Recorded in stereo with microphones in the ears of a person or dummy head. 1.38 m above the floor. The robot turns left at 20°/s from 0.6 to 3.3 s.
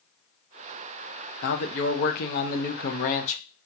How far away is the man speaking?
About 0.7 m.